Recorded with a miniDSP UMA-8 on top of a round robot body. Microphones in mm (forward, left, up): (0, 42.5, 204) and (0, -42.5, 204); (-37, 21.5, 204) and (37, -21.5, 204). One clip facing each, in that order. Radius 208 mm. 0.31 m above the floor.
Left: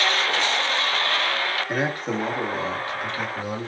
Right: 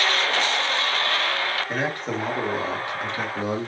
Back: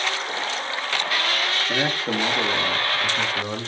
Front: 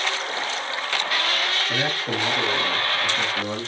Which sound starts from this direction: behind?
A man speaking, at 1.7 s.